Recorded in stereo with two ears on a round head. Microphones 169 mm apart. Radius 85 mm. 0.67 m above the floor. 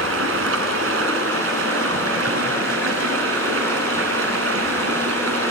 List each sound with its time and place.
0.0 s running water: 90° right, 3.5 m